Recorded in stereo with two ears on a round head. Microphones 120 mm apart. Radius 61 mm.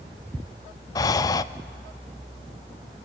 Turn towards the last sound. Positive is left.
turn(degrees=25)  # may be behind; listen again after turning